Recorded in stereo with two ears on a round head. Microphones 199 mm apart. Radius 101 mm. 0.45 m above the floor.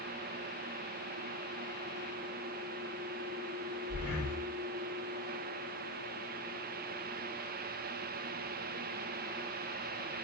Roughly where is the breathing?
Centre.